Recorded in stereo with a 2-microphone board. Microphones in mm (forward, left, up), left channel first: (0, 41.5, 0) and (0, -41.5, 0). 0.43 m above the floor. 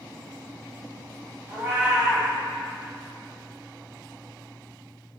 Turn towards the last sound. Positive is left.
turn(degrees=-20)  # may be behind; listen again after turning